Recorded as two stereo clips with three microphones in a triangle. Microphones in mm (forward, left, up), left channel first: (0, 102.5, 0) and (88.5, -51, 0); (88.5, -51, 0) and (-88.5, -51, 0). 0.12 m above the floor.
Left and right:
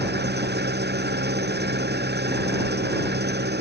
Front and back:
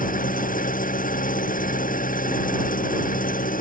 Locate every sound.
0.0 s an engine running: 40° right